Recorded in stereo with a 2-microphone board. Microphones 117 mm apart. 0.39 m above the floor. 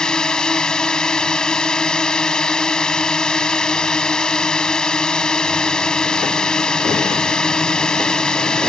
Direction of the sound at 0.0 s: 5° left (ahead or behind).